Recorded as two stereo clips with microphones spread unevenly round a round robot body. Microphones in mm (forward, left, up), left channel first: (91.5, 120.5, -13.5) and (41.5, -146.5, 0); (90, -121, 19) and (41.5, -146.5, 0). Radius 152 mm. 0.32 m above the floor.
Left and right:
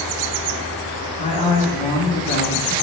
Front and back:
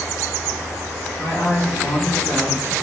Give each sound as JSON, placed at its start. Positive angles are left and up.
{"t": 1.2, "sound": "a woman speaking", "azimuth_deg": 20, "distance_m": 3.0}